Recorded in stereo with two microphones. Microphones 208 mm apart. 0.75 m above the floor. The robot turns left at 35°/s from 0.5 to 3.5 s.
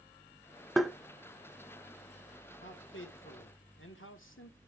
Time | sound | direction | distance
0.8 | tapping | centre (ahead or behind) | 0.6 m
2.6 | a man speaking | 115° left | 1.5 m